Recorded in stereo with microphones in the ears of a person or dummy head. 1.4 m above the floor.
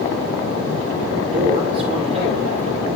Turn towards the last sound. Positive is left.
turn(degrees=-35)  # may be behind; listen again after turning